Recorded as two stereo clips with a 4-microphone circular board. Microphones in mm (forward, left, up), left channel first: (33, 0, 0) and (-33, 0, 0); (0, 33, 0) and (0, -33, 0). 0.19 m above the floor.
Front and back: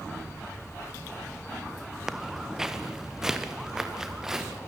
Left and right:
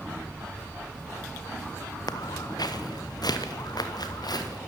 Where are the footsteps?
95° left, 1.5 m.